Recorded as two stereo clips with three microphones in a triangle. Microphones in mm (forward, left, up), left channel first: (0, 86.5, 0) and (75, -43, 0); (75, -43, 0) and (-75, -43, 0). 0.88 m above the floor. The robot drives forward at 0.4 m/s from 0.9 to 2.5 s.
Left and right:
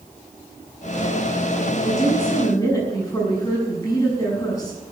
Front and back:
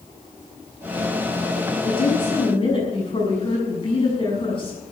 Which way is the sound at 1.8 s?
50° left.